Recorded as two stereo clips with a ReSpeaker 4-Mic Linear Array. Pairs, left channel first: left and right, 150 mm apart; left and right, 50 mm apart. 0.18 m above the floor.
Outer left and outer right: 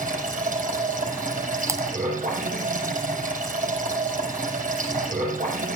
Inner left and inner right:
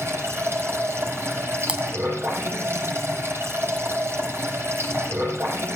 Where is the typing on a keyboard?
20° right (ahead or behind), 1.7 m.